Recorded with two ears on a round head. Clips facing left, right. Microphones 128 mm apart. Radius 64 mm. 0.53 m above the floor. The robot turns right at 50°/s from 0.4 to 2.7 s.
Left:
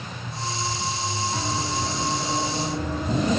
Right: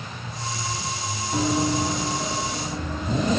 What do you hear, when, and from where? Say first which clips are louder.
1.3 s running footsteps: right 5 dB; 40° right (ahead or behind), 1.6 m; by 3.3 s 5° left (ahead or behind), 2.5 m